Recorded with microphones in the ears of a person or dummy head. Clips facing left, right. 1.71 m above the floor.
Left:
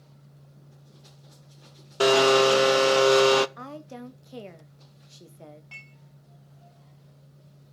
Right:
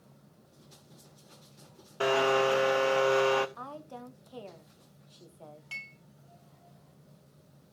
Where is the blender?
65° left (ahead or behind), 0.8 m.